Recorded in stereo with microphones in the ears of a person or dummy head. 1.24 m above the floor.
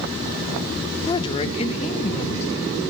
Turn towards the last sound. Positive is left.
turn(degrees=35)  # may be behind; listen again after turning